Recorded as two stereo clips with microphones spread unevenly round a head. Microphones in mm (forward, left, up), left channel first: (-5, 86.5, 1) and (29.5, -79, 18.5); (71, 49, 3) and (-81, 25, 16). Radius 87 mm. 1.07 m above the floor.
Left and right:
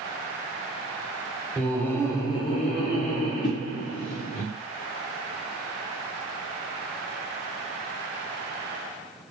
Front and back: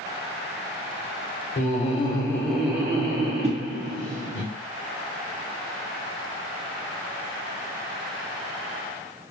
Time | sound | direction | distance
1.6 | laughter | 20° left | 0.8 m
3.4 | a whoosh | 150° left | 0.5 m